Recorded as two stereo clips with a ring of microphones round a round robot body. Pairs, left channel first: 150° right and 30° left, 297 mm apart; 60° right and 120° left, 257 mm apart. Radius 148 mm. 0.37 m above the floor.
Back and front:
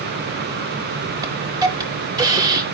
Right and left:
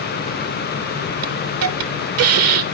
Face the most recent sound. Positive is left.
turn(degrees=105)